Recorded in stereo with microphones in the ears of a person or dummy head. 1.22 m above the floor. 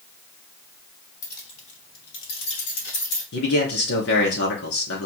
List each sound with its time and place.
1.2 s keys jangling: 15° left (ahead or behind), 1.1 m; by 3.2 s 80° left, 2.5 m
3.3 s a man speaking: 70° left (ahead or behind), 2 m